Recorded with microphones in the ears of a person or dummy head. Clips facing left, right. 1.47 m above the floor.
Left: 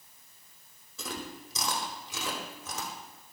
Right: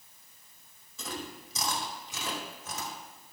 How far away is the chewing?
About 2.5 m.